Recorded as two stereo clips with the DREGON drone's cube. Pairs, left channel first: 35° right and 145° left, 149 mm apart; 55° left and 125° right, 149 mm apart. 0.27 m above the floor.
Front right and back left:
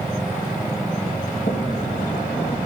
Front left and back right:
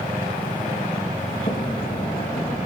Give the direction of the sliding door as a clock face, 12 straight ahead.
12 o'clock.